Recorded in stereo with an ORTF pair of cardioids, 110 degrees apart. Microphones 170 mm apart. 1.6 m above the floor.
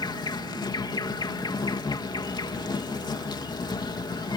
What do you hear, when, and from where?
0.0 s an insect: 25° left